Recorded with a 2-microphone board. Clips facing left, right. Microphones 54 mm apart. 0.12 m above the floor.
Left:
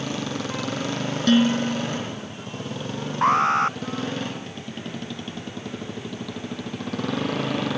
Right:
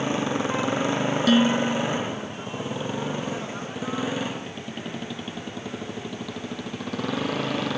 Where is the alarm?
75° left (ahead or behind).